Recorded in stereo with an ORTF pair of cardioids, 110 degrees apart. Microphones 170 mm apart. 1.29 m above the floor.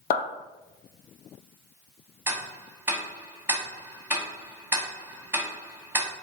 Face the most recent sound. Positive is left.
turn(degrees=-10)